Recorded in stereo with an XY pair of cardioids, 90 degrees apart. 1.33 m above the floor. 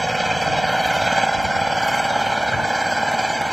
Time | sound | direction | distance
0.0 | an engine running | 10° right | ?